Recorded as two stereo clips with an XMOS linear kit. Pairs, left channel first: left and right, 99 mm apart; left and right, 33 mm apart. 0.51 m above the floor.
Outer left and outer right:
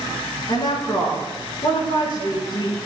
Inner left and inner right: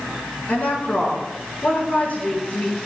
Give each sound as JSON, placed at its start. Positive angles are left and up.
{"t": 0.5, "sound": "a woman speaking", "side_deg": 60, "distance_m": 5.5}